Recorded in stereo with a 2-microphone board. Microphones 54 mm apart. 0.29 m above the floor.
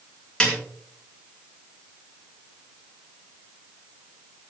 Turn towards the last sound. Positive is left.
turn(degrees=15)  # may be behind; listen again after turning